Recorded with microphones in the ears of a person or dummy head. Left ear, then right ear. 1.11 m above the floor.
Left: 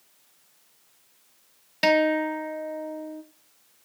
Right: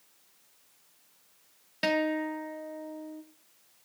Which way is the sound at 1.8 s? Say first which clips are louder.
Left 7 dB; 10° left (ahead or behind).